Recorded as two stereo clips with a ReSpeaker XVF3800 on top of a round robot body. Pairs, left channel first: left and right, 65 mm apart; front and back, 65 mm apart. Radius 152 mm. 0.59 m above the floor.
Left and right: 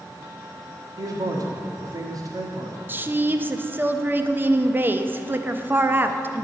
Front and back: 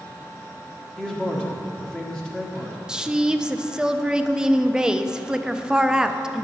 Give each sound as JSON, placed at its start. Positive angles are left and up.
{"t": 1.0, "sound": "a man speaking", "azimuth_deg": -80, "distance_m": 1.8}
{"t": 2.9, "sound": "a woman speaking", "azimuth_deg": -110, "distance_m": 0.6}